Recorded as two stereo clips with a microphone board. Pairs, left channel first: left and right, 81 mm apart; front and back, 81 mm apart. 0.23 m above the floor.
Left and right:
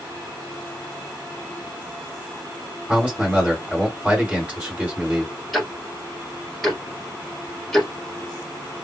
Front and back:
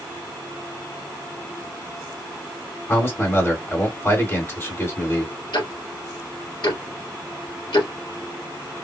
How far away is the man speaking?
About 1.9 m.